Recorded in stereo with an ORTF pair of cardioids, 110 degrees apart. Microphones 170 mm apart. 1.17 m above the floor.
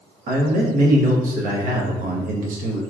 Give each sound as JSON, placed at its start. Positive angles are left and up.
{"t": 0.3, "sound": "a man speaking", "azimuth_deg": -60, "distance_m": 1.0}